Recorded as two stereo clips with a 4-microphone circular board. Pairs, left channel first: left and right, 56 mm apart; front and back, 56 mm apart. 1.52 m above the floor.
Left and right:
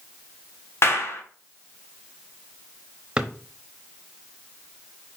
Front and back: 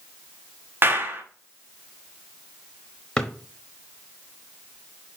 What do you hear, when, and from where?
0.8 s a clap: 130° left, 1.2 m
3.2 s a drawer: 50° right, 0.9 m